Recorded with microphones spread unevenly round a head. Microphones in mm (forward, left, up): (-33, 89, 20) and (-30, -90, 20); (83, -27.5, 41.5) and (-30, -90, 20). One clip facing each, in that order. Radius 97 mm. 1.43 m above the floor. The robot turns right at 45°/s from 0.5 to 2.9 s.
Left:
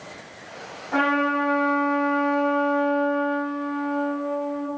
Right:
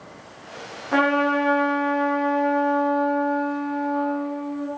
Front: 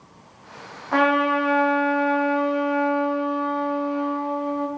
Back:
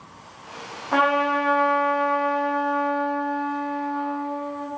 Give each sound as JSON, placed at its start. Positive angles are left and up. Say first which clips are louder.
{"t": 0.9, "sound": "a trumpet", "louder": "right 3 dB, front 1 dB", "azimuth_deg": -70, "distance_m": 1.3}